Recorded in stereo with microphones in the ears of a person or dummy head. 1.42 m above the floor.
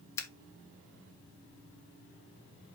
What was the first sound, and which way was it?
Scissors, 20° left (ahead or behind).